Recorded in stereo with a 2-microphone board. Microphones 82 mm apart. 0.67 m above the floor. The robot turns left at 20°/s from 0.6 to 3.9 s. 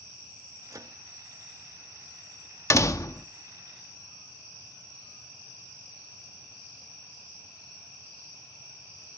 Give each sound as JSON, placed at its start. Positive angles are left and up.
{"t": 0.7, "sound": "a microwave", "side_deg": -45, "distance_m": 0.5}
{"t": 2.7, "sound": "a door slam", "side_deg": 40, "distance_m": 0.9}